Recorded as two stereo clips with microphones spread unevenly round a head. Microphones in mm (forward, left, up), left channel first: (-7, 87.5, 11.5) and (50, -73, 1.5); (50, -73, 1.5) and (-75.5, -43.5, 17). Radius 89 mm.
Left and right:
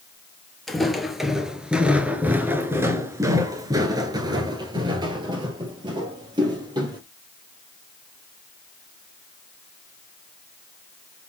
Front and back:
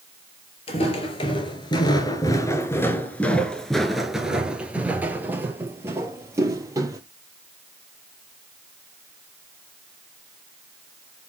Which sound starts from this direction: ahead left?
Footsteps, at 0.7 s.